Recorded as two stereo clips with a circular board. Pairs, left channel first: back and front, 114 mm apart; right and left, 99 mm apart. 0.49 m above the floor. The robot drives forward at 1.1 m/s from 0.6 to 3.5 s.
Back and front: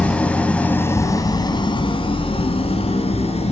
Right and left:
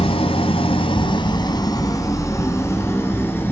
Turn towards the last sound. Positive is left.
turn(degrees=-155)